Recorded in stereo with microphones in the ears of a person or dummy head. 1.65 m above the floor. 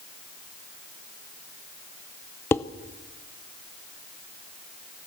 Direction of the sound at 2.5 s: 10° left (ahead or behind).